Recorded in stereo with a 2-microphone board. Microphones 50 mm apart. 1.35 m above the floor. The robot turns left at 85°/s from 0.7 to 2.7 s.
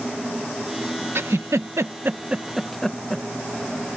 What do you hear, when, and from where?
1.1 s a giggle: 50° right (ahead or behind); by 3.2 s 5° left (ahead or behind)